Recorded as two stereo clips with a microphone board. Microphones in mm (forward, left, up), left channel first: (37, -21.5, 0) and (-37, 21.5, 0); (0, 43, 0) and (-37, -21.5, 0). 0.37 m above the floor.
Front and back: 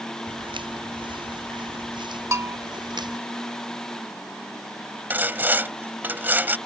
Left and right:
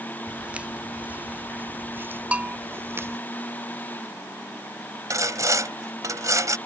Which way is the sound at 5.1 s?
150° right.